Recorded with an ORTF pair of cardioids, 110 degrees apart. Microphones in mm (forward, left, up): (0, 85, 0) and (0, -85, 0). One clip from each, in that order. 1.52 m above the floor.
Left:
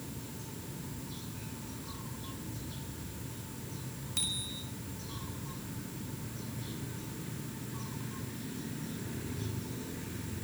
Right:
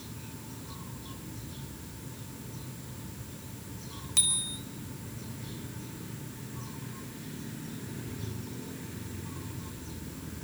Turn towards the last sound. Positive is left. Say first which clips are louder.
# right 5 dB
turn(degrees=-45)